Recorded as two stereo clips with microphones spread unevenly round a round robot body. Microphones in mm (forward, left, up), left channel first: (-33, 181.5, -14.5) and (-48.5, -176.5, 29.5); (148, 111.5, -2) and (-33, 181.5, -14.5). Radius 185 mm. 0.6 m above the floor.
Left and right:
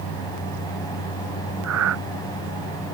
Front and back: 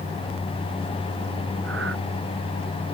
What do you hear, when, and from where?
1.6 s breathing: 140° right